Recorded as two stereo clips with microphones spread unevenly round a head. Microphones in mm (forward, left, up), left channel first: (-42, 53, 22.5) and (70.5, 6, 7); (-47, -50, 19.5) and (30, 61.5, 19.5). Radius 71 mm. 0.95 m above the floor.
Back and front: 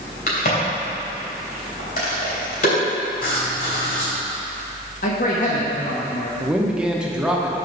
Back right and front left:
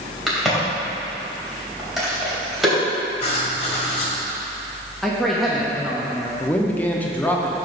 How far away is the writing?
About 1.9 m.